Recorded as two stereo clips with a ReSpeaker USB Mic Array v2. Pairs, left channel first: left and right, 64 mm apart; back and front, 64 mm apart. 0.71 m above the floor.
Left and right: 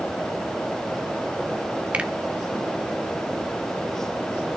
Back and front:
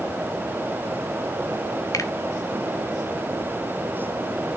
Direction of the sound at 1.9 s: 160° right.